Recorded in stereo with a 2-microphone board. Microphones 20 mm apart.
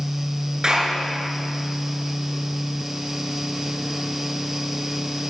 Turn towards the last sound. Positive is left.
turn(degrees=-30)  # may be behind; listen again after turning